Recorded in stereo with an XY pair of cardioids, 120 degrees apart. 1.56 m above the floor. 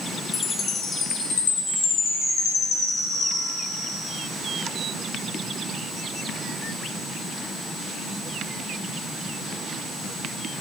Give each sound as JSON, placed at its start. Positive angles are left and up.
{"t": 0.3, "sound": "a chime", "azimuth_deg": 50, "distance_m": 5.0}